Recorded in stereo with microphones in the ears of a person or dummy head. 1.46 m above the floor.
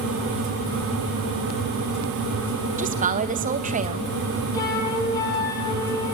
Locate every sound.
2.8 s a woman speaking: 30° right (ahead or behind), 2 m
4.5 s a flute: 15° left (ahead or behind), 6.5 m